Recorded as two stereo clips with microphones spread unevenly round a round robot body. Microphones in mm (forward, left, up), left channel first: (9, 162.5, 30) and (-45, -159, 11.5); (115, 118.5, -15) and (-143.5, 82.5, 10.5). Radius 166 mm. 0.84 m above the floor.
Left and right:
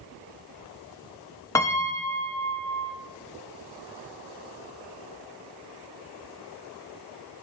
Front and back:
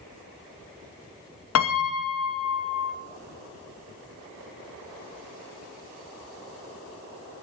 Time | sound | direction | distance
1.6 | a piano | straight ahead | 0.5 m